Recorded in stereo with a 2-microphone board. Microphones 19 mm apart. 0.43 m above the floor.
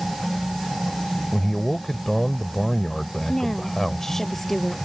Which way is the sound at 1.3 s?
20° left (ahead or behind).